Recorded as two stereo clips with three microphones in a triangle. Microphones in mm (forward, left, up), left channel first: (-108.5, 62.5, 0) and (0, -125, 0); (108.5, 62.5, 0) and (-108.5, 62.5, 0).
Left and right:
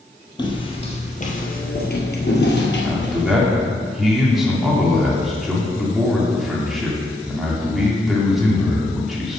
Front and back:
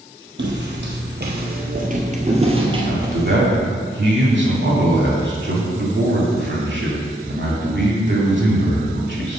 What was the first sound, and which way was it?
Footsteps, 175° right.